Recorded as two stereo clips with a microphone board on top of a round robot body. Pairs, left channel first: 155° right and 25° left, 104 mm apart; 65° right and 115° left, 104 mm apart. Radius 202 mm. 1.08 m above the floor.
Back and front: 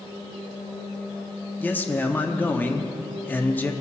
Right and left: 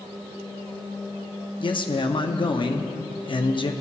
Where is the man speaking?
90° right, 0.7 m.